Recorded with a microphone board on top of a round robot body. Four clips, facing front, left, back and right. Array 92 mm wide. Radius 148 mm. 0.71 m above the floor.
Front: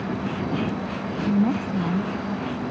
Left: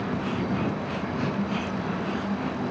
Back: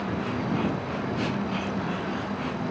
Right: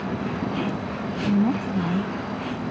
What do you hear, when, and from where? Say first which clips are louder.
1.3 s a woman speaking: right 6 dB, front 7 dB; 45° right